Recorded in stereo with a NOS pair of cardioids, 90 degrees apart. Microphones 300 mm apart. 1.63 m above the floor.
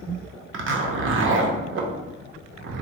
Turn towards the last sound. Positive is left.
turn(degrees=-45)